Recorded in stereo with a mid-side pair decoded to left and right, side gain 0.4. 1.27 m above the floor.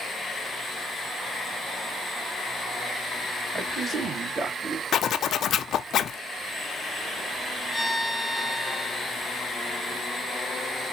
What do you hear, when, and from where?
3.5 s a man speaking: 50° right, 3 m; by 4.8 s 80° right, 3 m
4.9 s a zipper: 70° left, 0.5 m
7.7 s a violin: 5° right, 0.7 m